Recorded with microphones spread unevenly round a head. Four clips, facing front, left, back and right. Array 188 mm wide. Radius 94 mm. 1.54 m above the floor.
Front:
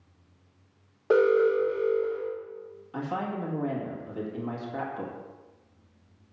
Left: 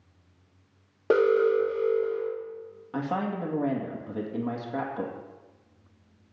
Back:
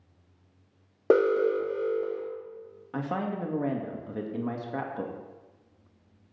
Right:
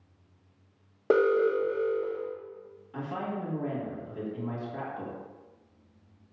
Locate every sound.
1.1 s an alarm: straight behind, 1.9 m
2.9 s a woman speaking: 140° left, 1.8 m